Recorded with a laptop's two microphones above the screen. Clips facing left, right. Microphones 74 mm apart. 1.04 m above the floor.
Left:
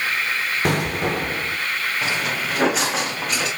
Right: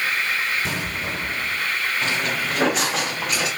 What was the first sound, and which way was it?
An explosion, 60° left (ahead or behind).